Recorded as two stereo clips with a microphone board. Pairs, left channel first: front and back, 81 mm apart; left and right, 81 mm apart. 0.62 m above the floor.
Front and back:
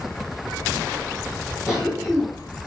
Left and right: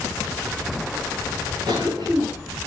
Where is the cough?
95° right, 7.5 m.